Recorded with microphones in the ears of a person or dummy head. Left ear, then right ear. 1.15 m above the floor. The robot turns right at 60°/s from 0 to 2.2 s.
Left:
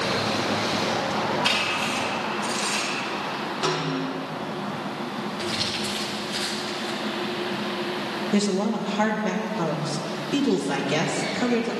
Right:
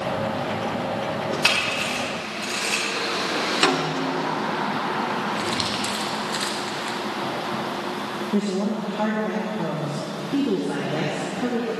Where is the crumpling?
25° right (ahead or behind), 1.2 m.